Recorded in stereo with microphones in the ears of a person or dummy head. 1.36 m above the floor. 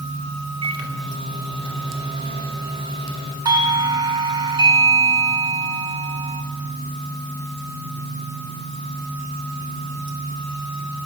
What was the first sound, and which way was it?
A microwave, 25° right (ahead or behind).